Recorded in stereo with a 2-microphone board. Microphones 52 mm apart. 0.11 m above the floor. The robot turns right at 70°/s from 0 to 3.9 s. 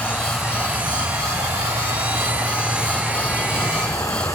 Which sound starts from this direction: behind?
Running water, at 0.0 s.